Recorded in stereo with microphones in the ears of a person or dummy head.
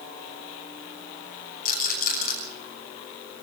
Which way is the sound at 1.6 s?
55° left (ahead or behind).